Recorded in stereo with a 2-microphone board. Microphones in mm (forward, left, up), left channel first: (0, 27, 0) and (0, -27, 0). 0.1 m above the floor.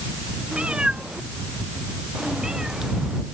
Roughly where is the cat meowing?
Centre.